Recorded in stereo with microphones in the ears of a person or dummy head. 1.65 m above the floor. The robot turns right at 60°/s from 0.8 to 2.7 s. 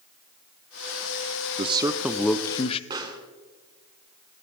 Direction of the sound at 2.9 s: 20° right (ahead or behind).